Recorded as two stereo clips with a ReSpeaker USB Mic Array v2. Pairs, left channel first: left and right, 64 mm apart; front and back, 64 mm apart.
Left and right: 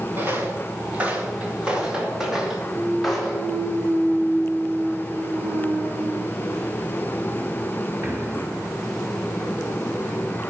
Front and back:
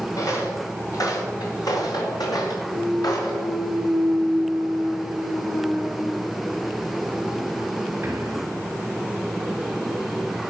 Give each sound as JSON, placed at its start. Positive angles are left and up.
{"t": 0.2, "sound": "footsteps", "azimuth_deg": -35, "distance_m": 4.0}
{"t": 2.7, "sound": "a clunk", "azimuth_deg": -125, "distance_m": 3.5}